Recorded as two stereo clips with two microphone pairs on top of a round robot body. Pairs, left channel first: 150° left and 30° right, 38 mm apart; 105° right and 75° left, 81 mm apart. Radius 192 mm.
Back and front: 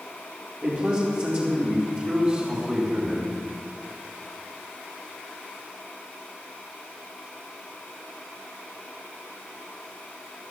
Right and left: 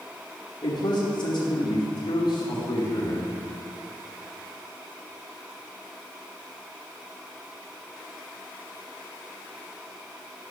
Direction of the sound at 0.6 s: 85° right.